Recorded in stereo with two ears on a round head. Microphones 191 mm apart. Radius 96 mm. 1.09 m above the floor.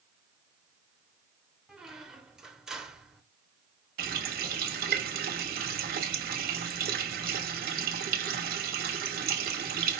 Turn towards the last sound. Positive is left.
turn(degrees=-45)  # may be behind; listen again after turning